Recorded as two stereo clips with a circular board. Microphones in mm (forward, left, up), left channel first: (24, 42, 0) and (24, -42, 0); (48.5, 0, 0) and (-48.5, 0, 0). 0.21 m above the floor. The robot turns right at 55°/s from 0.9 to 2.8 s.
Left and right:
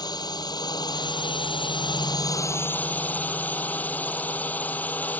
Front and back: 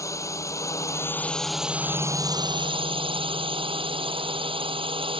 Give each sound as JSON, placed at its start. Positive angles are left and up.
{"t": 0.0, "sound": "a drone", "azimuth_deg": 55}